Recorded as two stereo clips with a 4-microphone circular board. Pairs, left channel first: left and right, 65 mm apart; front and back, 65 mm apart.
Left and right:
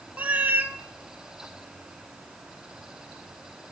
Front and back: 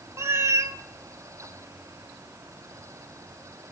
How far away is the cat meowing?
About 0.6 m.